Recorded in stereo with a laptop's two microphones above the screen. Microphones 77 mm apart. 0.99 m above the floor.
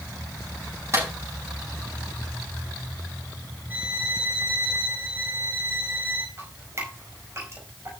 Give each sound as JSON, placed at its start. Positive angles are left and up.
{"t": 0.9, "sound": "a clap", "side_deg": -35, "distance_m": 7.0}
{"t": 3.7, "sound": "a violin", "side_deg": -20, "distance_m": 2.5}
{"t": 6.4, "sound": "dripping", "side_deg": -35, "distance_m": 5.0}